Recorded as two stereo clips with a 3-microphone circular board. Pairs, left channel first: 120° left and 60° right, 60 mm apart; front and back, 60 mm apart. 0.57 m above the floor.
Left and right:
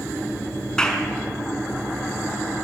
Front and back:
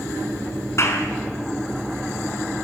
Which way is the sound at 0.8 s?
40° left.